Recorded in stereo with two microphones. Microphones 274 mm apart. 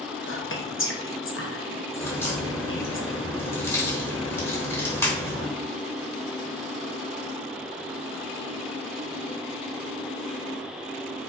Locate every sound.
0.3 s whispering: 45° left (ahead or behind), 0.7 m
2.0 s a crack: 10° left (ahead or behind), 1.0 m